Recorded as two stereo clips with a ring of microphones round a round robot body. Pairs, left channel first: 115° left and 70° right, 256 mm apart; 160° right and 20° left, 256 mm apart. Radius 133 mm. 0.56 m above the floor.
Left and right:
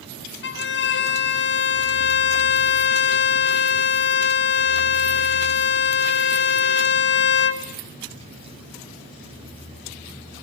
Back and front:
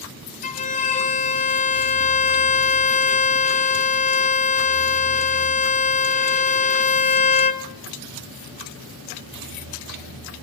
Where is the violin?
145° left, 1.7 m.